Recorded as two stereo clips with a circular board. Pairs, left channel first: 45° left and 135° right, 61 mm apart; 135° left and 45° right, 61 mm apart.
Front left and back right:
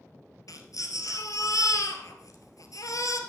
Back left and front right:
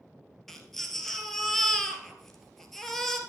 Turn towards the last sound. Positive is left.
turn(degrees=50)